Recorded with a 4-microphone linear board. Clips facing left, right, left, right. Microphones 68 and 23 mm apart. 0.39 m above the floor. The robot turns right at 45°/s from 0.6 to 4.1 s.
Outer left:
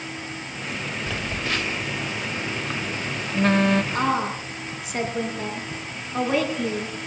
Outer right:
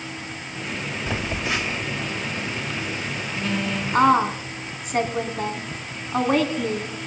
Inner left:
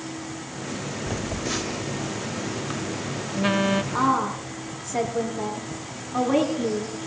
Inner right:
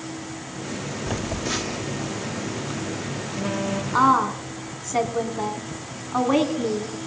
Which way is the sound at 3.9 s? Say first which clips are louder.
Outer right 6 dB, inner right 4 dB; 45° right (ahead or behind).